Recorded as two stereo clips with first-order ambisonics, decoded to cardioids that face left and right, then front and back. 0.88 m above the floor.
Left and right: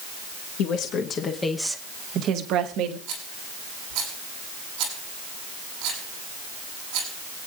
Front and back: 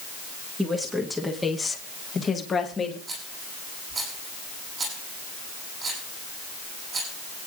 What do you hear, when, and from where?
0.6 s a woman speaking: 95° left, 1.3 m; by 3.0 s 70° right, 1.7 m
3.1 s a rattle: 115° right, 6.5 m